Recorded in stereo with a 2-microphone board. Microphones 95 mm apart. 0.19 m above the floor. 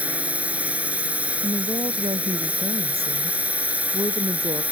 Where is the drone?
15° right (ahead or behind).